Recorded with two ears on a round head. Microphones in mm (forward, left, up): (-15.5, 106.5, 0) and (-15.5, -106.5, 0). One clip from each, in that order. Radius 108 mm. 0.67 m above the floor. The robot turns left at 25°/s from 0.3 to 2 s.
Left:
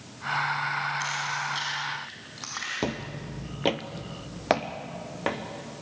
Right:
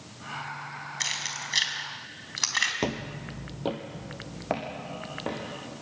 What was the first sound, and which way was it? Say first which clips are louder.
Keys jangling: left 2 dB; 40° right (ahead or behind).